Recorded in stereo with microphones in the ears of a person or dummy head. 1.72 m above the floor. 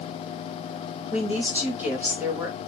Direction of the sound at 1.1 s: Centre (ahead or behind).